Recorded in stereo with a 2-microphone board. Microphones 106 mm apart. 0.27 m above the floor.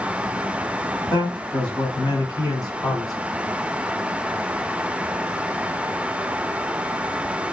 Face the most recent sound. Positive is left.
turn(degrees=35)  # may be behind; listen again after turning